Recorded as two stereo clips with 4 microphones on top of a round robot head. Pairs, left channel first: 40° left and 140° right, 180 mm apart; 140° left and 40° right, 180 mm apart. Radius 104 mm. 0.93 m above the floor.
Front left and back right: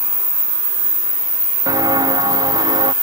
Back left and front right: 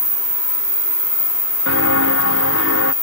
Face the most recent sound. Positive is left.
turn(degrees=155)